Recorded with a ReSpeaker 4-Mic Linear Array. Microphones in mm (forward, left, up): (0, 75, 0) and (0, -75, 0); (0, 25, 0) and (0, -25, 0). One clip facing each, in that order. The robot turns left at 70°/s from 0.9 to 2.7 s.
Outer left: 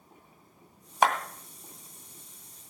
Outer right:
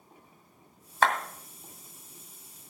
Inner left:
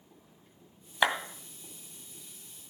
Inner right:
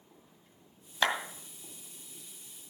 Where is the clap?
15° left (ahead or behind), 2 m; by 1.1 s 5° left (ahead or behind), 2 m.